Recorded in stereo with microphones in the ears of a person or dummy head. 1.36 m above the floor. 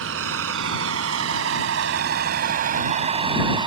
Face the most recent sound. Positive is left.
turn(degrees=-25)  # may be behind; listen again after turning